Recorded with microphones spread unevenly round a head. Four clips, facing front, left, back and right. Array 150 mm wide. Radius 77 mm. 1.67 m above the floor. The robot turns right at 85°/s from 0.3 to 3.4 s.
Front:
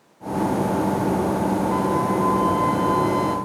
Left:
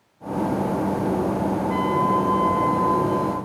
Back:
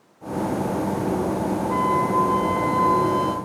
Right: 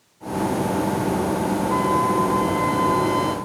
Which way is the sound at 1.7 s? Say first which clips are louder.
Right 1 dB, back 1 dB; 135° left.